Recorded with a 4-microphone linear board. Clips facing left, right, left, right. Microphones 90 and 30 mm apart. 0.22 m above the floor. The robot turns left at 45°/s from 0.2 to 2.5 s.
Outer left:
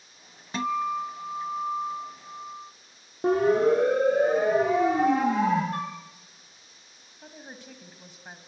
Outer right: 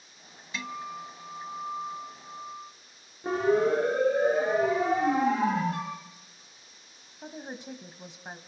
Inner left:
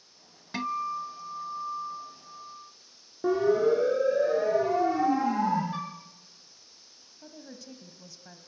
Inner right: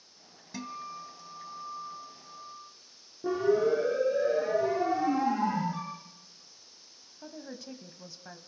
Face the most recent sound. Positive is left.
turn(degrees=-20)  # may be behind; listen again after turning